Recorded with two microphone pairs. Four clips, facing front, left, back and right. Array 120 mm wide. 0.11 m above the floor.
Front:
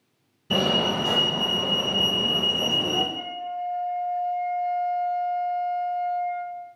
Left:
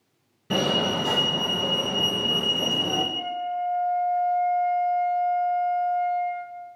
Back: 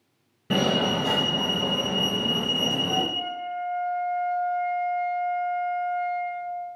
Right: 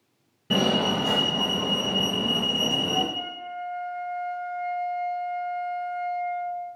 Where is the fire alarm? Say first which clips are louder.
Right 1 dB, back 1 dB; 175° left, 2.5 m.